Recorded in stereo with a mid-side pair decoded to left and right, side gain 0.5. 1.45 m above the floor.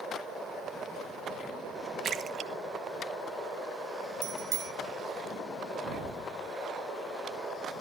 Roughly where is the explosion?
Ahead right.